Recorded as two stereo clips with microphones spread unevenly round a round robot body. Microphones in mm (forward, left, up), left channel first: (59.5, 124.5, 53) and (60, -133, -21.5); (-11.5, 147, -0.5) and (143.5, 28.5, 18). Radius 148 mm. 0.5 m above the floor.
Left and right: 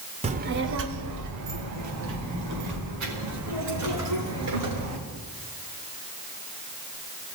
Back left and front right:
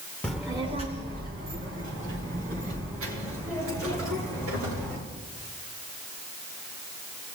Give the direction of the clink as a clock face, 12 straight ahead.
No clink in this recording.